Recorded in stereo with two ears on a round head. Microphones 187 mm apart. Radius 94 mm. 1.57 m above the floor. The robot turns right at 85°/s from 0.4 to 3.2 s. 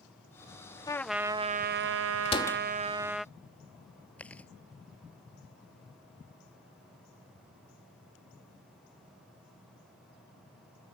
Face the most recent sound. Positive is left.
turn(degrees=5)  # may be behind; listen again after turning